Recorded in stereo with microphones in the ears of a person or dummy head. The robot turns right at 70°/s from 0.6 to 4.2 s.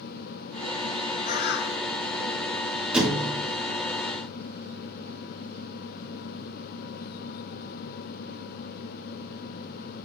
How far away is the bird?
About 0.8 m.